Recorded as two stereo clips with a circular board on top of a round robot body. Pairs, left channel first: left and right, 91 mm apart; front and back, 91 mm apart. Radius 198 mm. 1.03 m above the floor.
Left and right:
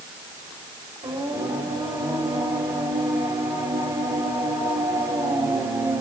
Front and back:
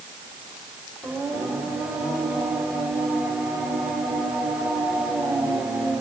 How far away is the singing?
About 2.5 m.